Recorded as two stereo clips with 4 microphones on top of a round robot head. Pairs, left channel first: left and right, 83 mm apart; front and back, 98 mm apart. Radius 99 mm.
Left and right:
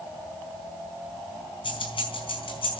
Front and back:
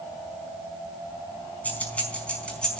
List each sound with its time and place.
1.6 s keys jangling: 75° left, 5 m; by 2.8 s 85° left, 5 m